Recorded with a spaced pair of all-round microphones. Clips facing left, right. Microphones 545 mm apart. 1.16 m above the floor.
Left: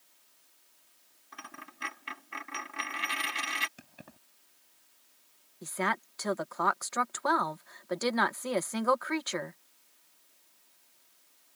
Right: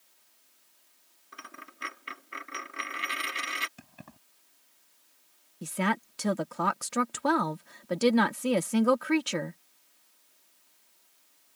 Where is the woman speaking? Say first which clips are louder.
Right 5 dB; 55° right (ahead or behind).